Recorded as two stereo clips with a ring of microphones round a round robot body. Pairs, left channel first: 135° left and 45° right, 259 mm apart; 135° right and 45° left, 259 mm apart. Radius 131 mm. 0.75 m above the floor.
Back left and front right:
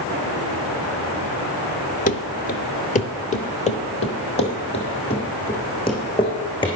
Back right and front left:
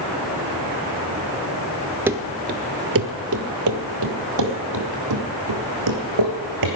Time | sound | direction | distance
2.1 | running footsteps | 120° left | 0.7 m